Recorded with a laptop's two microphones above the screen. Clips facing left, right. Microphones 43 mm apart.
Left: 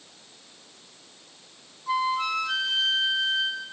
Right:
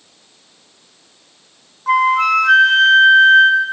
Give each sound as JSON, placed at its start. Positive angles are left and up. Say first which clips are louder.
{"t": 1.9, "sound": "a flute", "louder": "right 12 dB", "side_deg": -75}